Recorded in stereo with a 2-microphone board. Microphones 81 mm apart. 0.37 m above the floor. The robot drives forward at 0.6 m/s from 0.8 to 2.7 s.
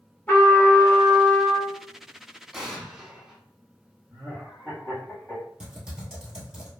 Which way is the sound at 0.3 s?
20° left (ahead or behind).